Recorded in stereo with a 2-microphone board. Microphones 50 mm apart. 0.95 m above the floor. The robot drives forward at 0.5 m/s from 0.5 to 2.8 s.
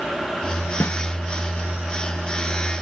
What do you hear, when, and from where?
0.8 s a snare drum: 65° left (ahead or behind), 1.4 m